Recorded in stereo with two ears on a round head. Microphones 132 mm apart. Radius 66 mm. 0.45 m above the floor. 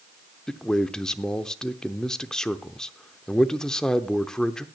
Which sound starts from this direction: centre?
A man speaking, at 0.5 s.